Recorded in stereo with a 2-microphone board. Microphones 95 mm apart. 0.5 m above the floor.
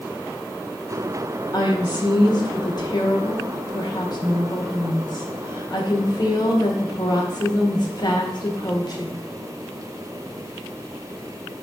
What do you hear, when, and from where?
1.5 s a woman speaking: 45° left (ahead or behind), 1.9 m